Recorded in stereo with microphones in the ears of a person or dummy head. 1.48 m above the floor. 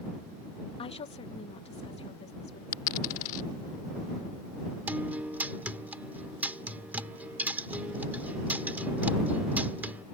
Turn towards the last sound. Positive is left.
turn(degrees=-5)  # may be behind; listen again after turning